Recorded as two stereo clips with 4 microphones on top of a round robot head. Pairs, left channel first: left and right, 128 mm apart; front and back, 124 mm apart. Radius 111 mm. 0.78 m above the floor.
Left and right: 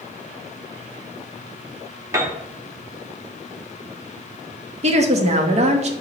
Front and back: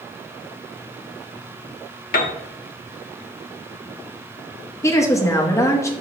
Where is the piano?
15° right, 0.7 m.